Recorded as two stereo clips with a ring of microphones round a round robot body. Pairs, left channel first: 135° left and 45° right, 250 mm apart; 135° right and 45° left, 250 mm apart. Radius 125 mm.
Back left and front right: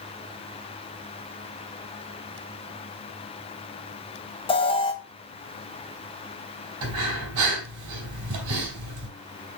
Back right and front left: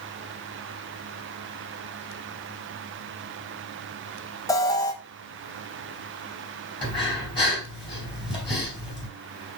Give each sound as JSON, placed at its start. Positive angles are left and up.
{"t": 4.5, "sound": "an alarm", "azimuth_deg": 170, "distance_m": 1.1}
{"t": 6.8, "sound": "breathing", "azimuth_deg": -65, "distance_m": 3.5}